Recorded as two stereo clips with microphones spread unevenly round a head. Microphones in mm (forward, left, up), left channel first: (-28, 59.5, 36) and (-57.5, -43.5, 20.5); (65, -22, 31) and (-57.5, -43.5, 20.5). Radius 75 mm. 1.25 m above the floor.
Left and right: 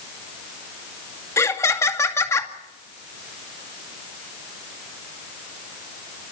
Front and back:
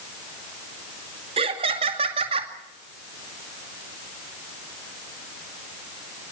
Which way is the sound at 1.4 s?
140° left.